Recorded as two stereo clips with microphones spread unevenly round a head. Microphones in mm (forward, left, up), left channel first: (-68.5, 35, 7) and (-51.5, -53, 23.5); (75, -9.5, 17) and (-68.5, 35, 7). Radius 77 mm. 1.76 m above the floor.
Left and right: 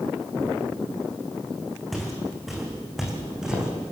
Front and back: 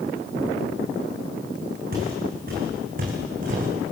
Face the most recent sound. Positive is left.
turn(degrees=-155)